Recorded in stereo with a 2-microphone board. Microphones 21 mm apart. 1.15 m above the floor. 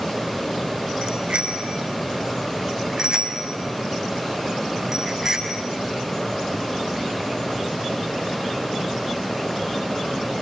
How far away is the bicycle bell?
About 4.5 m.